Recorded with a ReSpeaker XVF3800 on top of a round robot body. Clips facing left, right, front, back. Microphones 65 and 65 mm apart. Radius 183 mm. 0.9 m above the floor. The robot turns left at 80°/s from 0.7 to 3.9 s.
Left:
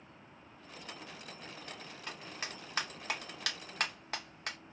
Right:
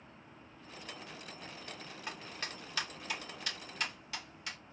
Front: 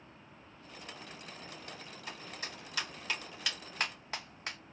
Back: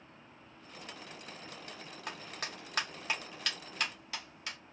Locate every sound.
2.1 s a clap: 165° right, 1.5 m; by 4.6 s 50° left, 1.5 m